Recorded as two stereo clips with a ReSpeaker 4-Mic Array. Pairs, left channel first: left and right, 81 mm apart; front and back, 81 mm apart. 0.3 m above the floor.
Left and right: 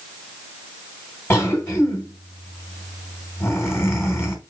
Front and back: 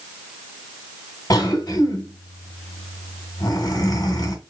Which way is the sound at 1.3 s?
35° left.